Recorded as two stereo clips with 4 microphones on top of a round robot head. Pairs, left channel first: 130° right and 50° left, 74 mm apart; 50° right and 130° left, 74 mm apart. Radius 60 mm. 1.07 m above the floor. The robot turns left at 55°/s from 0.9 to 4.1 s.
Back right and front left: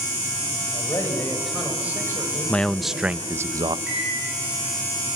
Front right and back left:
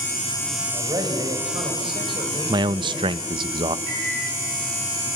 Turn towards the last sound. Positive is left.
turn(degrees=110)